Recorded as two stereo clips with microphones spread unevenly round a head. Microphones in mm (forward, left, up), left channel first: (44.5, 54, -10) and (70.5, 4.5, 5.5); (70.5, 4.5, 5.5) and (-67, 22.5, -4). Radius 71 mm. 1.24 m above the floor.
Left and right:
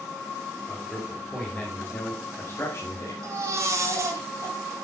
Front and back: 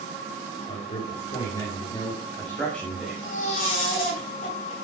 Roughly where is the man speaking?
Ahead left.